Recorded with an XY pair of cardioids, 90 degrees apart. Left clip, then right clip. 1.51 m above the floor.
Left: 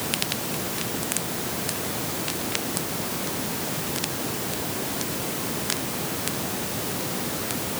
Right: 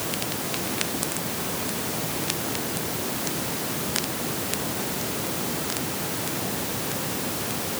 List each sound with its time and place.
Only background noise.